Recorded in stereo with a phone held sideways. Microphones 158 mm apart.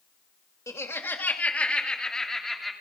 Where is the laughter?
20° left (ahead or behind), 2 m; by 2.7 s centre (ahead or behind), 3 m.